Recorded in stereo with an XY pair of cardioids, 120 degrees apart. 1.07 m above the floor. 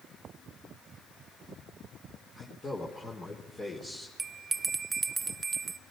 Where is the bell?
30° right, 0.7 m.